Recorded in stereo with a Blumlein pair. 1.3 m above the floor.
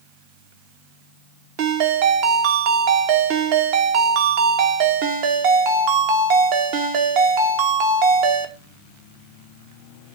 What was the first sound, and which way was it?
A ringtone, 45° right.